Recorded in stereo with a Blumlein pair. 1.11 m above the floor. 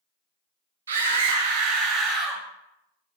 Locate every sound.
0.9 s a scream: 65° right, 0.9 m; by 2.4 s 15° right, 1.0 m